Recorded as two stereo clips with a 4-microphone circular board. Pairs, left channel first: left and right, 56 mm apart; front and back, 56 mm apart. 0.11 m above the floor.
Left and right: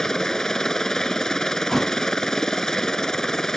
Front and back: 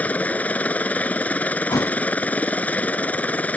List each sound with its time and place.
0.0 s a helicopter: 20° left
1.7 s a thud: 5° left